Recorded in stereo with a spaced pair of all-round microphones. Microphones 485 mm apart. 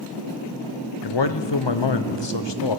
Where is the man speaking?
60° left (ahead or behind), 0.9 m.